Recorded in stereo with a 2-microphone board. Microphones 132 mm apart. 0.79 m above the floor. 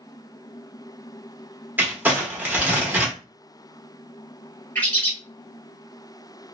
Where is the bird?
15° left (ahead or behind), 1.0 m.